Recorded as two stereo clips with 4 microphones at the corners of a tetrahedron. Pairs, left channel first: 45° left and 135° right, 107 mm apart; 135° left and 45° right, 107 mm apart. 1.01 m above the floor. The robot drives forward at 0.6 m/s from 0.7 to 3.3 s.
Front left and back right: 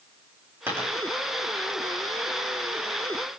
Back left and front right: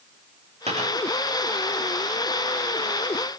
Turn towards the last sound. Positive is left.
turn(degrees=-75)